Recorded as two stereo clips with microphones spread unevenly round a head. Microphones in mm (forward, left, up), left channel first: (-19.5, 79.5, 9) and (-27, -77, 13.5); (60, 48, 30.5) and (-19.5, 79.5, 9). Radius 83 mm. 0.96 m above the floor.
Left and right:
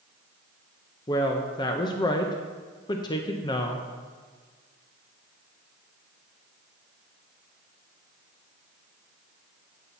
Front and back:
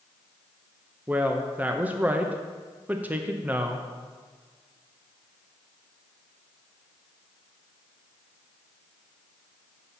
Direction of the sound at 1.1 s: 130° left.